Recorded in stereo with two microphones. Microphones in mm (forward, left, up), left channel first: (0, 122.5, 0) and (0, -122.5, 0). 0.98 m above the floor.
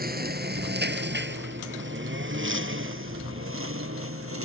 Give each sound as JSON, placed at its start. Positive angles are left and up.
{"t": 0.0, "sound": "a lawn mower", "side_deg": -35}